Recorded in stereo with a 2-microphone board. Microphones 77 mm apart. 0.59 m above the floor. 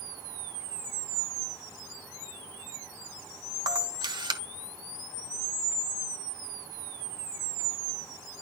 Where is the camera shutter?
75° right (ahead or behind), 1.1 m.